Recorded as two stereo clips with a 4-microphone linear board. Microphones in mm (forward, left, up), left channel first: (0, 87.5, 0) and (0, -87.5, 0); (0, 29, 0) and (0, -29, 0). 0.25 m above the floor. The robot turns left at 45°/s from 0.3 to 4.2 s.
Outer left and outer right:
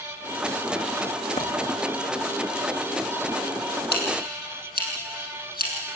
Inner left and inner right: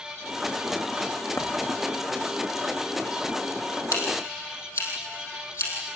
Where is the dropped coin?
55° left (ahead or behind), 5 m; by 1.5 s 60° left (ahead or behind), 5 m.